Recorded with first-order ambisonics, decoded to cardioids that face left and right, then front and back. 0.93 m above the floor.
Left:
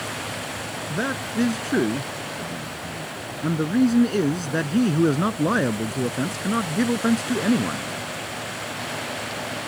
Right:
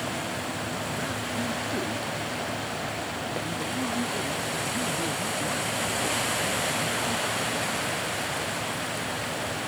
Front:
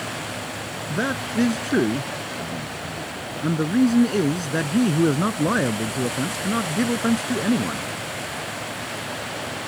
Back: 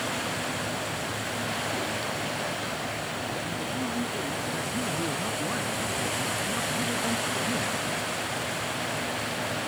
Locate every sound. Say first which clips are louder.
0.9 s a man speaking: left 4 dB, front 6 dB; 35° left; by 7.9 s 55° left